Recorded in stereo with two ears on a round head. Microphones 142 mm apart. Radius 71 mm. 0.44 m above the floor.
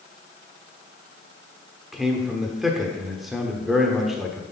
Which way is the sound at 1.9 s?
Centre (ahead or behind).